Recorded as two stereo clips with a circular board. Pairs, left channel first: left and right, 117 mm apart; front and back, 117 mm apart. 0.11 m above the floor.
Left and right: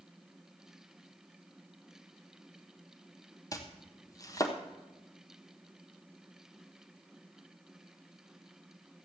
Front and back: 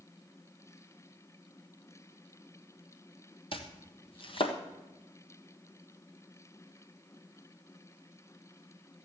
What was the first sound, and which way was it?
Chopping, 35° left.